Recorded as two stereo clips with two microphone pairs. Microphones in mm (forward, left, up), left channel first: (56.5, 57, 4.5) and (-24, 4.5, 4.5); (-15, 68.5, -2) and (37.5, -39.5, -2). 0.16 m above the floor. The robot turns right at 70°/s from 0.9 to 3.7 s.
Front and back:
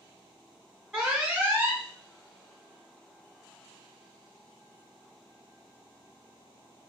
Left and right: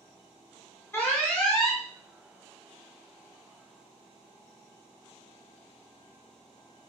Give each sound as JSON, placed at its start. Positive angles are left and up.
{"t": 0.9, "sound": "an alarm", "azimuth_deg": 140, "distance_m": 0.9}